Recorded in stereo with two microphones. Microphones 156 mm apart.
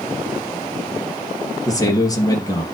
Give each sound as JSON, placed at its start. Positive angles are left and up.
{"t": 1.6, "sound": "a man speaking", "side_deg": 25, "distance_m": 3.0}